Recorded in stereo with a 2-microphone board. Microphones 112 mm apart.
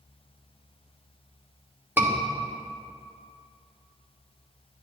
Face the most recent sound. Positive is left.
turn(degrees=-15)  # may be behind; listen again after turning